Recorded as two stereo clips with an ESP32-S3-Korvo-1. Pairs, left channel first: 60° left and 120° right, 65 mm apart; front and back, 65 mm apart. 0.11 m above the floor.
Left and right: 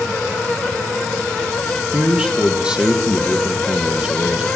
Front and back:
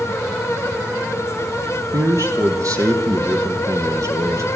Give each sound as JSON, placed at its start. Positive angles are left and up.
{"t": 1.9, "sound": "a man speaking", "azimuth_deg": 165, "distance_m": 3.5}